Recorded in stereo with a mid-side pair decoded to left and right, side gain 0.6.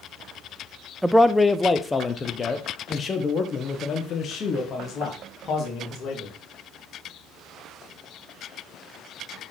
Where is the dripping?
No dripping in this recording.